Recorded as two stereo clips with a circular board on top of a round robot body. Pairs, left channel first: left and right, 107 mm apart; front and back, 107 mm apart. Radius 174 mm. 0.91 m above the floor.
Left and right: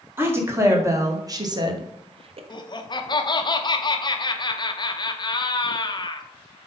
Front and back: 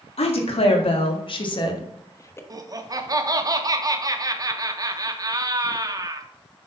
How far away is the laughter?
About 1.2 m.